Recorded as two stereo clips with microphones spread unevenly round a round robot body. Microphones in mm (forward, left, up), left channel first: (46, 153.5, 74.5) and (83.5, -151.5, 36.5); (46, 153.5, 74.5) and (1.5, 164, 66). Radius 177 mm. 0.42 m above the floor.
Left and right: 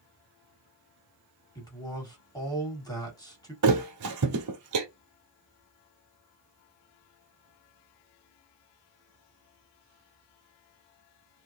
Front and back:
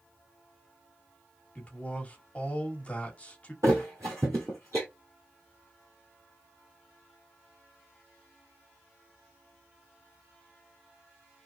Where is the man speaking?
20° left, 1.4 m.